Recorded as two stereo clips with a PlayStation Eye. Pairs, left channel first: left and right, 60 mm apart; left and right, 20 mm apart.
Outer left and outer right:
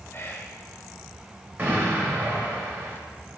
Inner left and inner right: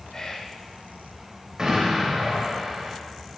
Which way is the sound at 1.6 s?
35° right (ahead or behind).